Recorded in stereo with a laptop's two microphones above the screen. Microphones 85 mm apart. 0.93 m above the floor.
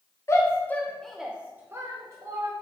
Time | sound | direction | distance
0.3 | a shout | 35° left (ahead or behind) | 0.6 m